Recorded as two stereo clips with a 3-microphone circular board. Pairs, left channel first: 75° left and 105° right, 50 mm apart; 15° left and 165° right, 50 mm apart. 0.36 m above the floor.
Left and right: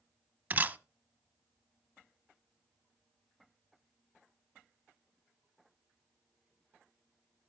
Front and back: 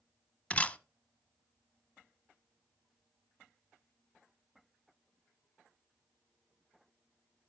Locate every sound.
0.5 s a camera shutter: 50° right, 0.7 m